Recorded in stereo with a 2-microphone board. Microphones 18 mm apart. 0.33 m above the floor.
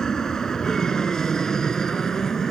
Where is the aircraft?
30° left (ahead or behind); by 2.5 s 25° left (ahead or behind).